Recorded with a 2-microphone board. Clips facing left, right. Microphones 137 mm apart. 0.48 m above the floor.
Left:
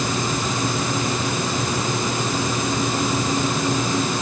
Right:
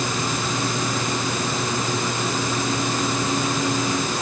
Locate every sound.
Only background noise.